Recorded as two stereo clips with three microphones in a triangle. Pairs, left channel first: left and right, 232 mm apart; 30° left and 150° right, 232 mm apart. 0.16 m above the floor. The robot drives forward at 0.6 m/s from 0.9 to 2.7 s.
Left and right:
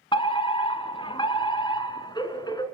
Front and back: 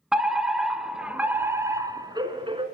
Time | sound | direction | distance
0.1 | a fire alarm | 125° left | 2 m